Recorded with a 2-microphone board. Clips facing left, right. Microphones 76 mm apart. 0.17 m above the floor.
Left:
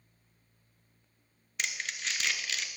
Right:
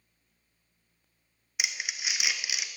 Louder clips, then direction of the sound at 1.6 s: Right 1 dB; 10° right (ahead or behind).